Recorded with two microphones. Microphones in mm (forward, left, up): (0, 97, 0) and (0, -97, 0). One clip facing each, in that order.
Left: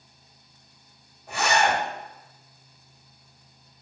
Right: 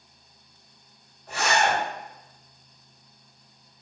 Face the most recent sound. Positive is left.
turn(degrees=15)  # may be behind; listen again after turning